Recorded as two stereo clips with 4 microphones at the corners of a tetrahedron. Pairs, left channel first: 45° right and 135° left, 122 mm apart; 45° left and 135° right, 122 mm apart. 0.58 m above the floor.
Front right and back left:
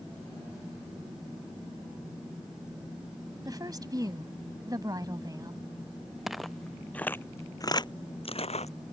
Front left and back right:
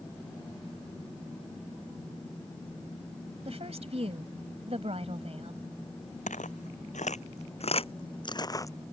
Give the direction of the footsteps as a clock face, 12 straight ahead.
10 o'clock.